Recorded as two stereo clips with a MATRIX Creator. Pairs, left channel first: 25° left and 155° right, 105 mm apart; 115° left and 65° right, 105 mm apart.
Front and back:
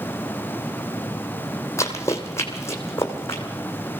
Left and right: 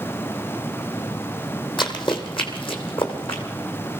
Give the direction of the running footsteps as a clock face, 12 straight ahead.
9 o'clock.